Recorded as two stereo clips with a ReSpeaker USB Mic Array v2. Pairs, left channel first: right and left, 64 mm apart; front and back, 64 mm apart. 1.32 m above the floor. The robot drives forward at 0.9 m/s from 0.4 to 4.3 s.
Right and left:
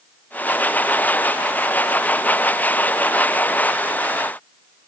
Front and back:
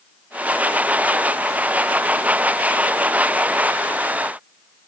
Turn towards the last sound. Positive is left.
No sound to turn to.